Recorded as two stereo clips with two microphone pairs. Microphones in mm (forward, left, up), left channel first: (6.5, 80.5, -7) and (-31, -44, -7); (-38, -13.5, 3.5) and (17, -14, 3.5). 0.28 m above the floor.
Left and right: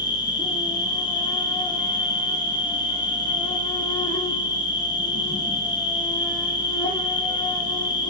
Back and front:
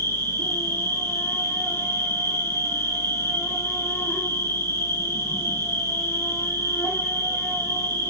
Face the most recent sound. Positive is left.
turn(degrees=135)